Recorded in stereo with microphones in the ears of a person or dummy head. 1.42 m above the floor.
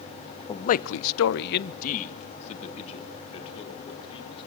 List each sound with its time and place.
0.5 s a man speaking: 20° left (ahead or behind), 0.7 m; by 4.5 s 30° left (ahead or behind), 4 m